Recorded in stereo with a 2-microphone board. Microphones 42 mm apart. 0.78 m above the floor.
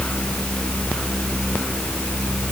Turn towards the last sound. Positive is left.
No sound to turn to.